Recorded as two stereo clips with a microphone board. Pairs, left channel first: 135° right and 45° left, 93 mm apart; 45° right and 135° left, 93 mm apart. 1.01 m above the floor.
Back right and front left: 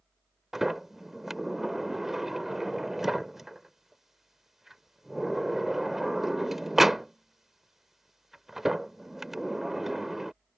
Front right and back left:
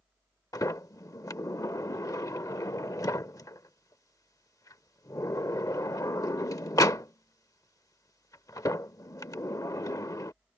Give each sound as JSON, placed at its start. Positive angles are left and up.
{"t": 0.5, "sound": "a sliding door", "azimuth_deg": -40}